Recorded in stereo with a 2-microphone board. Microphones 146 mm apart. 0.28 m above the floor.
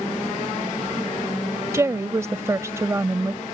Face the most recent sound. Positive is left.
turn(degrees=-20)  # may be behind; listen again after turning